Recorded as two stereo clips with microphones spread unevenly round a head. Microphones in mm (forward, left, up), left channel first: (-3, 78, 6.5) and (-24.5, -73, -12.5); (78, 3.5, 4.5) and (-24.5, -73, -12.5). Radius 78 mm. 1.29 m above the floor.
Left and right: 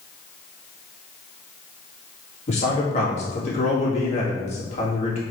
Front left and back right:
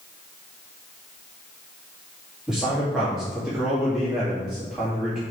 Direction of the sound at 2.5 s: 130° left.